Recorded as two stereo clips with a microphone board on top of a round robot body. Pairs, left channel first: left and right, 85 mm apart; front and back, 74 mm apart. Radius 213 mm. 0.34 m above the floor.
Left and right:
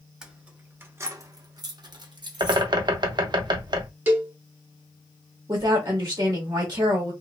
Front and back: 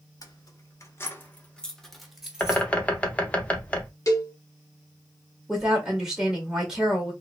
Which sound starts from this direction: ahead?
Keys jangling, at 0.2 s.